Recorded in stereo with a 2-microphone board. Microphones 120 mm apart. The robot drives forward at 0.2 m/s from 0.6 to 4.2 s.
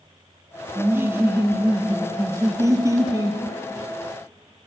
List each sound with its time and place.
0.8 s laughter: 20° right (ahead or behind), 0.6 m; by 3.4 s 25° right (ahead or behind), 0.5 m